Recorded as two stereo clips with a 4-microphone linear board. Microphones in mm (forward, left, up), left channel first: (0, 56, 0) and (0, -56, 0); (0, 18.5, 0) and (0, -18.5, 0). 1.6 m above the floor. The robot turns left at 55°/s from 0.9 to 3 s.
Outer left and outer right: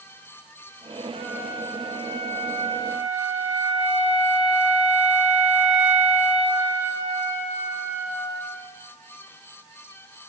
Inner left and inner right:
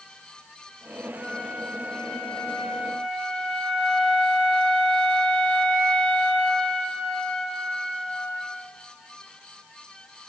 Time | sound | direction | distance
1.1 | a flute | 65° right | 5.5 m